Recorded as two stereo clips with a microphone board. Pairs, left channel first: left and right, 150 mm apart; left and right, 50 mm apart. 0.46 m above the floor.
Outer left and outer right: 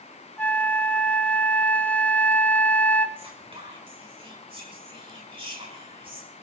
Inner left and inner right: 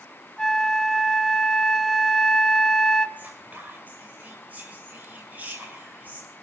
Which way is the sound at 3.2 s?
35° right (ahead or behind).